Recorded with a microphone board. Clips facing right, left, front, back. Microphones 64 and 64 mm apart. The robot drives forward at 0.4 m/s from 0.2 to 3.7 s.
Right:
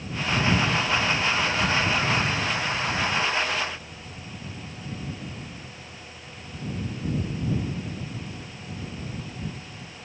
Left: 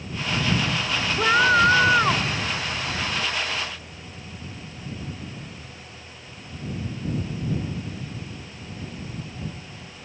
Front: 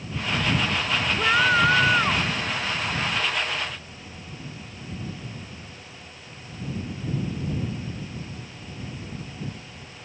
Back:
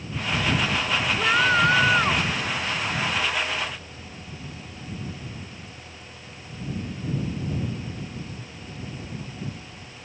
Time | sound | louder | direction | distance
1.2 | a scream | left 7 dB, front 1 dB | 80° left | ?